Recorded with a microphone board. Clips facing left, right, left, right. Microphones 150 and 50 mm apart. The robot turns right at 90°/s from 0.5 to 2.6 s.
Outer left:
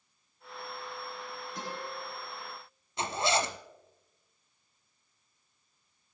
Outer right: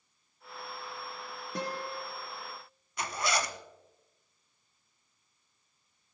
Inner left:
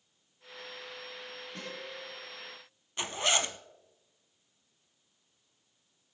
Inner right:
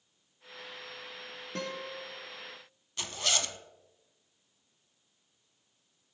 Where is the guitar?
80° right, 9 m; by 2.0 s 35° right, 9 m.